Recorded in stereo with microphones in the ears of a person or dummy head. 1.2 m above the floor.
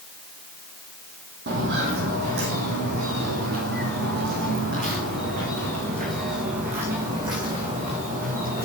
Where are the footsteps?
55° right (ahead or behind), 2 m; by 8.7 s 45° right (ahead or behind), 5.5 m.